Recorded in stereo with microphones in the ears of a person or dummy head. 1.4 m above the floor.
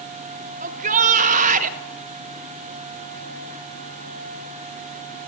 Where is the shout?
40° right (ahead or behind), 1.4 m.